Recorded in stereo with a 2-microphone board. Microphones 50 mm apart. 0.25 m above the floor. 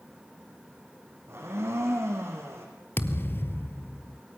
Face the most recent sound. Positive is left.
turn(degrees=45)  # may be behind; listen again after turning